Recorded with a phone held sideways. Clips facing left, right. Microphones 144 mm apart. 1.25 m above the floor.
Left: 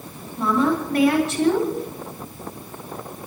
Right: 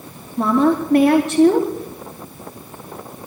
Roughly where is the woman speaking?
Right.